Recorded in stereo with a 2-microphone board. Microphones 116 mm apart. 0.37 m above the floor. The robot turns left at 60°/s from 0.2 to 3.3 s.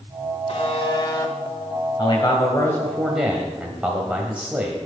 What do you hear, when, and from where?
0.5 s a buzzer: 80° left, 1.6 m; by 1.3 s 25° left, 1.6 m
2.0 s a man speaking: 65° left, 1.7 m; by 4.8 s 15° right, 1.7 m